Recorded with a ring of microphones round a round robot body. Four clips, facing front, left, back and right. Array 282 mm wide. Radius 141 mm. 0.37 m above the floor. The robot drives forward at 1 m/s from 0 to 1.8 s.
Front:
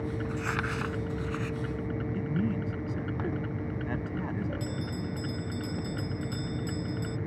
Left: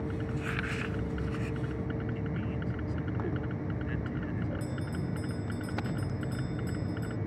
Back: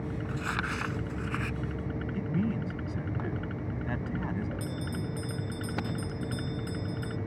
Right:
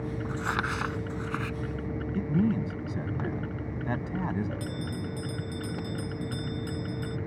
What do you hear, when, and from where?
0.2 s crumpling: 75° right; by 1.6 s 115° right
2.1 s a man speaking: 90° right
4.6 s a bell: 65° right